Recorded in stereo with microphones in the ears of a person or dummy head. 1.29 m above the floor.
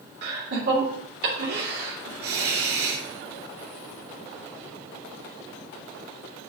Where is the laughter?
65° right (ahead or behind), 2.5 m.